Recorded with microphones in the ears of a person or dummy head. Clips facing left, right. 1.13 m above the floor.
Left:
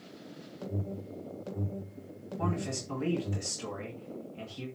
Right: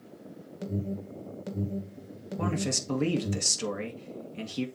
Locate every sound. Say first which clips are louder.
0.6 s an alarm: right 4 dB; 20° right (ahead or behind), 1.6 m
2.4 s a man speaking: right 3 dB; 70° right (ahead or behind), 2.0 m